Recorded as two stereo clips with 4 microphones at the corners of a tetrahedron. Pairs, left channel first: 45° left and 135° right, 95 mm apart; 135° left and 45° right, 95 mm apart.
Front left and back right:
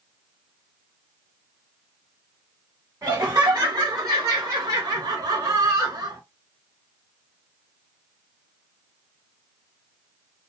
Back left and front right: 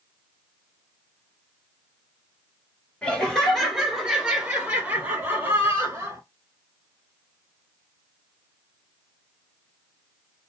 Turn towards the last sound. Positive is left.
turn(degrees=-90)